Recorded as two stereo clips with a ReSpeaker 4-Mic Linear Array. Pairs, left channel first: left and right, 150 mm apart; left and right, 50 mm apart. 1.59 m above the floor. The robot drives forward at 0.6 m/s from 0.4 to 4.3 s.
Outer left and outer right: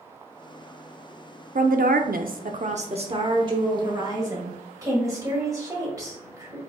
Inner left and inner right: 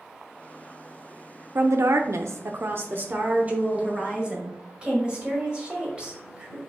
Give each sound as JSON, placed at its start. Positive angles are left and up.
{"t": 1.6, "sound": "a woman speaking", "side_deg": -60, "distance_m": 0.6}